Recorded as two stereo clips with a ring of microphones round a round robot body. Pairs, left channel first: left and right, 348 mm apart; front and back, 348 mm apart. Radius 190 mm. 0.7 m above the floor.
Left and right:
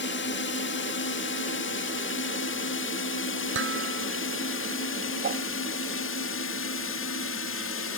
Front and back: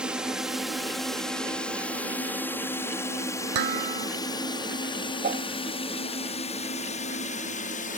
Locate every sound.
0.0 s a drone: 95° left; by 8.0 s 60° left
3.5 s dishes clattering: 155° right
5.2 s a whoosh: 130° right